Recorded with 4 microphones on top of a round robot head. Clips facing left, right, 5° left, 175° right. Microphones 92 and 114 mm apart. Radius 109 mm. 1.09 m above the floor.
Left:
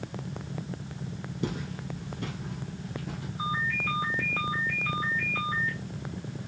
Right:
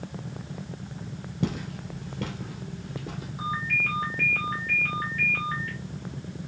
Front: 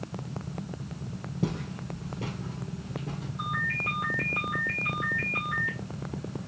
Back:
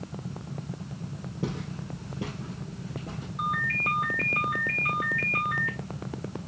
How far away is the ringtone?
About 3 m.